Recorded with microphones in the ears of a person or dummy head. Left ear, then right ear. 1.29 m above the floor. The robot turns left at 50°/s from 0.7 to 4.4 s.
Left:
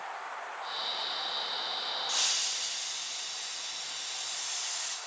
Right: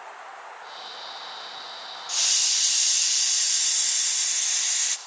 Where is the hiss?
10° right, 0.6 m; by 5.0 s 125° right, 0.6 m.